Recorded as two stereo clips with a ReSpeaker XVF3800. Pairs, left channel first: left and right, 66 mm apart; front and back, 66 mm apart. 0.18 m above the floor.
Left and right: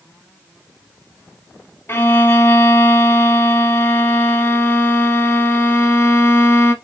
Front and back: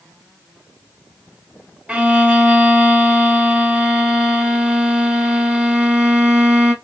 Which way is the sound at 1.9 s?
115° left.